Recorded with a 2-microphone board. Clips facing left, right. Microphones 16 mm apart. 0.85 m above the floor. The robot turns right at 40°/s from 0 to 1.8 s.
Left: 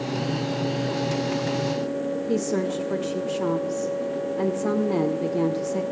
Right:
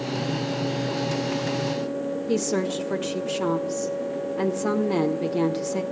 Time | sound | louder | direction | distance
2.3 | a woman speaking | right 1 dB | 30° right (ahead or behind) | 0.6 m